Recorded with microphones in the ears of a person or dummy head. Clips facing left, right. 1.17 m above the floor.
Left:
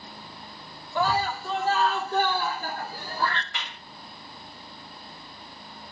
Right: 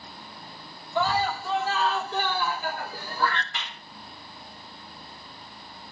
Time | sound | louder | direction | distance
0.9 | a scream | even | 50° left (ahead or behind) | 4.5 m
3.5 | a clap | even | 75° left (ahead or behind) | 6 m